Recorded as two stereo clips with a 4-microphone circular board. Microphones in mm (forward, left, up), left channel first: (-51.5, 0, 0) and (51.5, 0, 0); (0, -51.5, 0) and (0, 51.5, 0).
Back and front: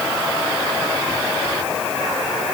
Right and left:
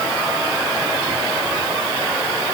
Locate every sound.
Only background noise.